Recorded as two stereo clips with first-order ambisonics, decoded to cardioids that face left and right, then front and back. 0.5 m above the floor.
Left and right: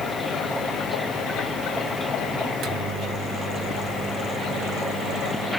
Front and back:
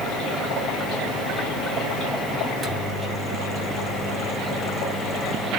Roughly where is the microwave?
Right.